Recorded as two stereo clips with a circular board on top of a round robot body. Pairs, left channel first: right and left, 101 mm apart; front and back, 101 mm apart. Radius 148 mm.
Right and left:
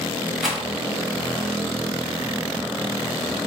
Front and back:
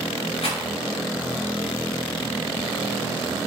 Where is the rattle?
Straight ahead, 1.5 m.